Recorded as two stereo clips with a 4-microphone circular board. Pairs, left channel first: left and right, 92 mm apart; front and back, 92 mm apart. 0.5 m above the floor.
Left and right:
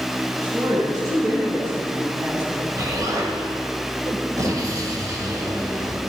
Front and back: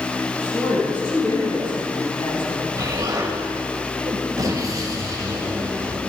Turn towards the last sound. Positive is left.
turn(degrees=-135)